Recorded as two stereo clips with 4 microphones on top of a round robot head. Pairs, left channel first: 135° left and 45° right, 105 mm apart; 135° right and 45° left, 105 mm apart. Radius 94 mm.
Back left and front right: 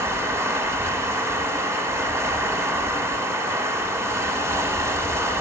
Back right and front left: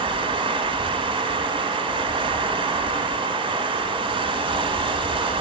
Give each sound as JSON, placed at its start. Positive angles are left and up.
{"t": 0.0, "sound": "running water", "azimuth_deg": 20, "distance_m": 0.8}